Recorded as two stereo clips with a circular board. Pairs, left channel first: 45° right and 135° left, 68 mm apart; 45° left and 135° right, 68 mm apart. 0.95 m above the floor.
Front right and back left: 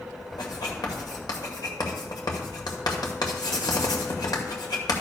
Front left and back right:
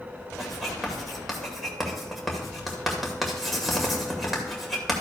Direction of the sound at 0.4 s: 45° right.